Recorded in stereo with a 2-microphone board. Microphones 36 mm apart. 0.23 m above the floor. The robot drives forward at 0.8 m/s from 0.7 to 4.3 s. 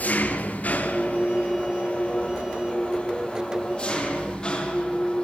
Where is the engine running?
50° left (ahead or behind), 2.5 m; by 5.2 s 25° left (ahead or behind), 5 m.